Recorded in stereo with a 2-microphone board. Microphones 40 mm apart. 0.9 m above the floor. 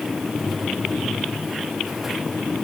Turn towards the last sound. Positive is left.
No sound to turn to.